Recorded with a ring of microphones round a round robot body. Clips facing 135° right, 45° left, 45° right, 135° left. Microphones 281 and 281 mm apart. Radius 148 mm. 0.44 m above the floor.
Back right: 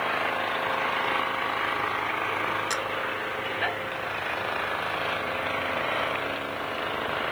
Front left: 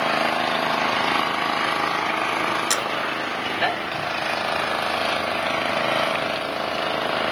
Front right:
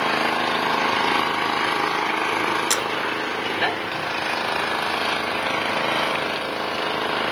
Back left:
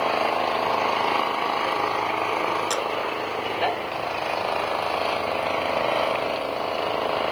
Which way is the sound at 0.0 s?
15° left.